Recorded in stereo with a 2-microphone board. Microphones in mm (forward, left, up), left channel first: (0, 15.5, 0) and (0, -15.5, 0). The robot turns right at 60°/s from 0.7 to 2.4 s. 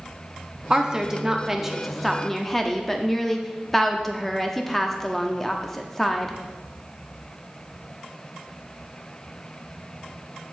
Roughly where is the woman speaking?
Right.